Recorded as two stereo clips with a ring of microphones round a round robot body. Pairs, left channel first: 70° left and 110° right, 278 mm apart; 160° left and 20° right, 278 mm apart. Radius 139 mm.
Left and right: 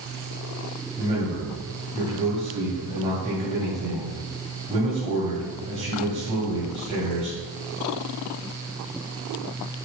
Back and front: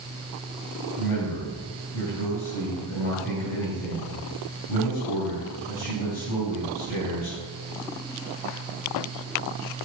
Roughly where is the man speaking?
Behind.